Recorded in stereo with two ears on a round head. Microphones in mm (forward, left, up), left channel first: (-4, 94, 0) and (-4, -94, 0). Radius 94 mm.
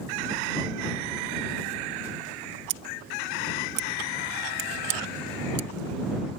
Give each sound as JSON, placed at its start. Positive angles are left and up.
{"t": 2.7, "sound": "scissors", "side_deg": -60}